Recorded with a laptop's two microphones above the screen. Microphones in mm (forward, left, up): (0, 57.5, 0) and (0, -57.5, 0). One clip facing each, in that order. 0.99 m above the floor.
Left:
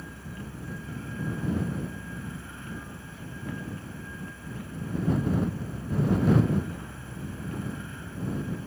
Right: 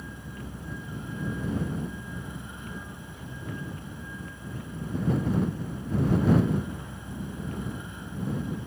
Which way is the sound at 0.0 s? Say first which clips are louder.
Even; 20° right (ahead or behind).